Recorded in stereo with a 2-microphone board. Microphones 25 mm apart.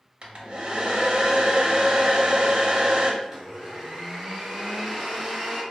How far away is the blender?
About 1.5 m.